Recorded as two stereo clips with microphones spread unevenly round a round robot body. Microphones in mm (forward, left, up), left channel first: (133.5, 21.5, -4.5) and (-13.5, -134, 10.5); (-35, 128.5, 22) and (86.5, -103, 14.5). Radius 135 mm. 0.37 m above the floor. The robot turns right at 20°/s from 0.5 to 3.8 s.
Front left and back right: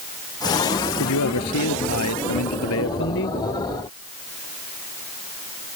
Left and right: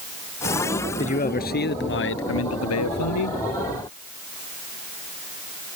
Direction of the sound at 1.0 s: 50° left.